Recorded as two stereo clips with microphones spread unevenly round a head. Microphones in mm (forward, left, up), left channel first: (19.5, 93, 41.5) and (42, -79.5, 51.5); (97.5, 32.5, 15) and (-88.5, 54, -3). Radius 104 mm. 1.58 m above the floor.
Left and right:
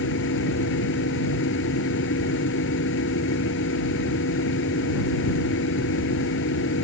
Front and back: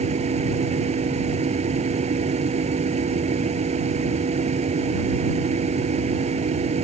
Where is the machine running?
120° left.